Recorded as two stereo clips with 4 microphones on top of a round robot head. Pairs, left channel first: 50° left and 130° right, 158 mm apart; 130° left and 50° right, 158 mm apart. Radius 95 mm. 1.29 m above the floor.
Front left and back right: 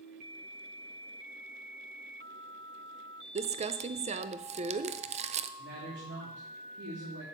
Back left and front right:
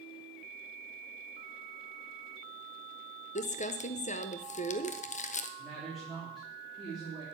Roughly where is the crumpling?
Behind.